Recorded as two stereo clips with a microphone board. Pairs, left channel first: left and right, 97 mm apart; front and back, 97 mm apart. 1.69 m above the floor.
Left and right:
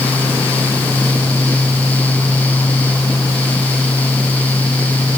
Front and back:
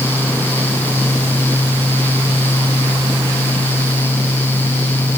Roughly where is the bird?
No bird in this recording.